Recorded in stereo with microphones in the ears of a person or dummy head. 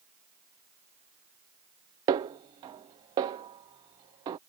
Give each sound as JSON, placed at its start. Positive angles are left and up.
{"t": 2.1, "sound": "a snare drum", "side_deg": -20}